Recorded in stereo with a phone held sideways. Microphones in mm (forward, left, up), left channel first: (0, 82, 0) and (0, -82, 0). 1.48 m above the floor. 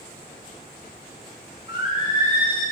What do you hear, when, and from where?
1.7 s singing: 30° right (ahead or behind), 5 m